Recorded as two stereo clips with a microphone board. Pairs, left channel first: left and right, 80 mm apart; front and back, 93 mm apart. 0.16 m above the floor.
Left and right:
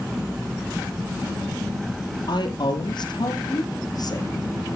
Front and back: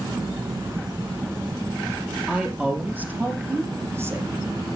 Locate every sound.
2.3 s a woman speaking: 100° left, 3.5 m; by 4.8 s 130° left, 2.5 m